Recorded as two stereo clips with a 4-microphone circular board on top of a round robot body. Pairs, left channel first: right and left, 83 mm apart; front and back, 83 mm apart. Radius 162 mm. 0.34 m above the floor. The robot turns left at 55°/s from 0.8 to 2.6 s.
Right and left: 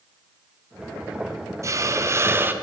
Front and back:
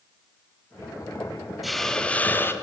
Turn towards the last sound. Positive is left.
turn(degrees=40)